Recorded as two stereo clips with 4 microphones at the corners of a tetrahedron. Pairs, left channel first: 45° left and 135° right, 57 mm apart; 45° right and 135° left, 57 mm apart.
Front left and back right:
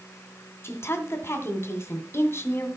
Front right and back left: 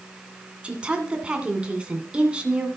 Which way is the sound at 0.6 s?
65° left.